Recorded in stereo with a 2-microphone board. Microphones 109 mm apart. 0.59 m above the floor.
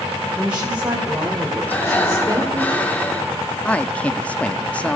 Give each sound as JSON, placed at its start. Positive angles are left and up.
{"t": 0.4, "sound": "a woman speaking", "side_deg": -10, "distance_m": 3.0}
{"t": 1.7, "sound": "breathing", "side_deg": 15, "distance_m": 1.9}
{"t": 3.6, "sound": "a man speaking", "side_deg": 10, "distance_m": 0.6}